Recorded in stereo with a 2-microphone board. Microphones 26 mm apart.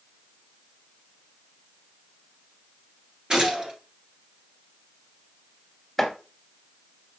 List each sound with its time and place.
3.3 s a gunshot: 25° right (ahead or behind), 1.8 m
6.0 s chopping: 5° left (ahead or behind), 1.8 m